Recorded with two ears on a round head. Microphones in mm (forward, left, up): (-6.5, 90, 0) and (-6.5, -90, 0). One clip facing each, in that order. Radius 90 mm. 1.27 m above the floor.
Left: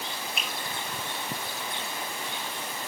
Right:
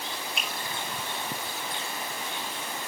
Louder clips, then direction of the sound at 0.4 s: Even; centre (ahead or behind).